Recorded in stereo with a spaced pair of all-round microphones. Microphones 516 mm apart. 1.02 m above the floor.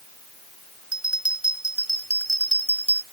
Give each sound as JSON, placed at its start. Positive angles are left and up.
{"t": 0.9, "sound": "a bell", "side_deg": 60}